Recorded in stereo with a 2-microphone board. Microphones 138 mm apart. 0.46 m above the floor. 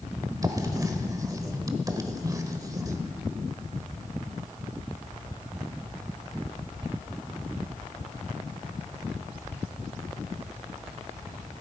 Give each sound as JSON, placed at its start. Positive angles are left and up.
{"t": 0.4, "sound": "writing", "side_deg": -25, "distance_m": 1.1}